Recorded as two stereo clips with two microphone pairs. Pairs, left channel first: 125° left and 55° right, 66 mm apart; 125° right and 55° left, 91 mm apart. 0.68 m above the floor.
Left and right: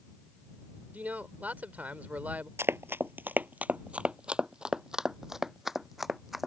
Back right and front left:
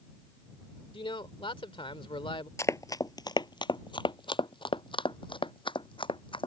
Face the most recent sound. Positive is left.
turn(degrees=-145)